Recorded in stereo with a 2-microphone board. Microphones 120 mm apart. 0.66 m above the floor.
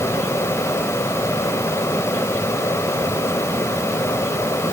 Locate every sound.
Only background noise.